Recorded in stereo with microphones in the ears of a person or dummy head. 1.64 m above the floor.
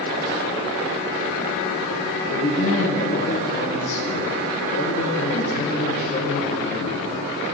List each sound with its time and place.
2.3 s a man speaking: 50° left (ahead or behind), 1.6 m